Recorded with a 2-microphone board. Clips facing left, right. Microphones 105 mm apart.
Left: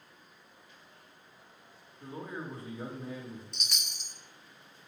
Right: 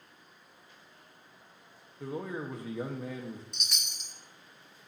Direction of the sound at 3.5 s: Centre (ahead or behind).